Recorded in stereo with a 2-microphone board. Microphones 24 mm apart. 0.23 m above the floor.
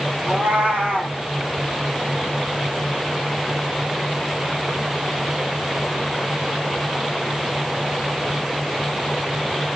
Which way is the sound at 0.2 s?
80° right.